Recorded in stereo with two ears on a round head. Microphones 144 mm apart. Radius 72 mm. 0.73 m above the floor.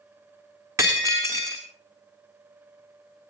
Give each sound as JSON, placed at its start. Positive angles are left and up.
{"t": 0.8, "sound": "breaking glass", "side_deg": -20, "distance_m": 3.0}